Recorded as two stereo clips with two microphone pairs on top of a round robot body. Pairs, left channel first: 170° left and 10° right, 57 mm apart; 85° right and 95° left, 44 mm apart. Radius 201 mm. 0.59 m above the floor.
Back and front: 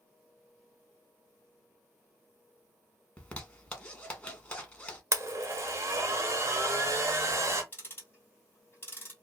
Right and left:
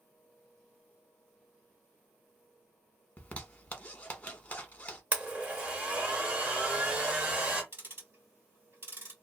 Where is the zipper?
130° right, 1.2 m.